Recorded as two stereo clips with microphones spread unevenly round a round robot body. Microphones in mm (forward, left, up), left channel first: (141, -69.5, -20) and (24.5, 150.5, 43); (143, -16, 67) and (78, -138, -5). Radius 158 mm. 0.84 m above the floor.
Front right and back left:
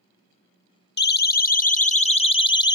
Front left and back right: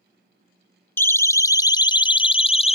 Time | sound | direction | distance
1.0 | a siren | 25° right | ?